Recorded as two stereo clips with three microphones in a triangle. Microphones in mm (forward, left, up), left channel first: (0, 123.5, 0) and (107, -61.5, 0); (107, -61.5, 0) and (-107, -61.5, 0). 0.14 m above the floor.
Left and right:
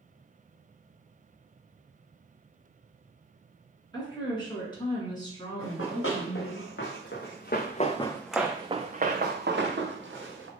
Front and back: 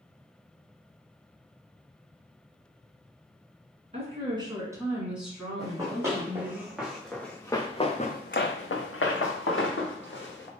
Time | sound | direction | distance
3.9 | a woman speaking | 170° left | 1.5 m
5.6 | running footsteps | 105° left | 1.7 m